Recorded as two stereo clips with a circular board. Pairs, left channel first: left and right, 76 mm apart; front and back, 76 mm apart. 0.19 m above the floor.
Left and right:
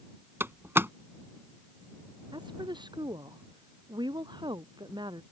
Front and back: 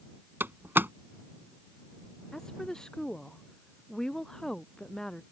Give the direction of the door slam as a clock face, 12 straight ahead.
4 o'clock.